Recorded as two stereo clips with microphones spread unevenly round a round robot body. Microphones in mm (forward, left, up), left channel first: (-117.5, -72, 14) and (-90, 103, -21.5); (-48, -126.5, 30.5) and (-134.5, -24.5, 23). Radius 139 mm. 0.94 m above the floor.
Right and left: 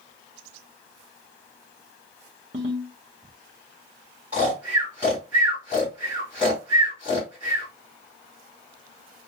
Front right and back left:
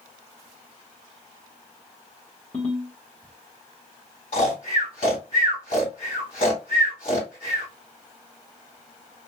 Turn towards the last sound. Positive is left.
turn(degrees=0)